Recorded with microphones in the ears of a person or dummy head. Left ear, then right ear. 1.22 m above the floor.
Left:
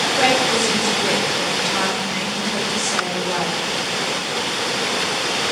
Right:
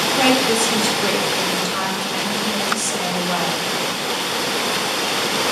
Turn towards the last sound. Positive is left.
turn(degrees=-90)